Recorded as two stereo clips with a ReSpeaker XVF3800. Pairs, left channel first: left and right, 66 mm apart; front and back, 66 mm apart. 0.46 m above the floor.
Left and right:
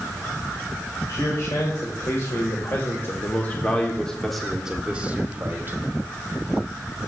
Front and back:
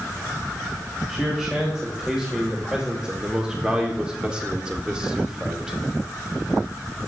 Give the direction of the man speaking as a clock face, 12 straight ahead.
9 o'clock.